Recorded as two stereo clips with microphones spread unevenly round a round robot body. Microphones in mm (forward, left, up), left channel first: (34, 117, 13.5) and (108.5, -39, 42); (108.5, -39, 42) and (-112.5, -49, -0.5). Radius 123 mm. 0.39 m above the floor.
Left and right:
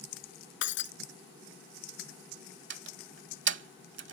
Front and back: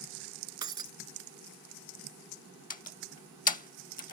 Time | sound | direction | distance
0.6 | breaking glass | 105° left | ?
2.7 | a door slam | 55° right | ?